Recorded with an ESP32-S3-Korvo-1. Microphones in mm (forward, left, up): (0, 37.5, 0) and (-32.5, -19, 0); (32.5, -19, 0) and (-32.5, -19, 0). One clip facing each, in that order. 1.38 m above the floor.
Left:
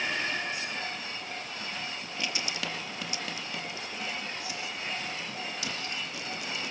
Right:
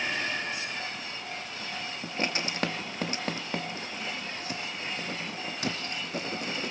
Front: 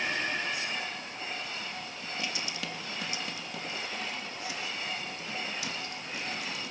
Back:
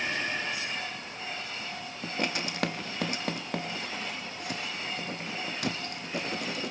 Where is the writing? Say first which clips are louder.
Right 7 dB, back 6 dB; 160° right, 1.1 m.